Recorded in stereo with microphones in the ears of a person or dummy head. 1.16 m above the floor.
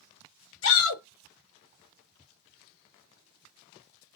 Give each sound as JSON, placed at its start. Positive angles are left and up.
{"t": 0.6, "sound": "a shout", "side_deg": 55, "distance_m": 0.9}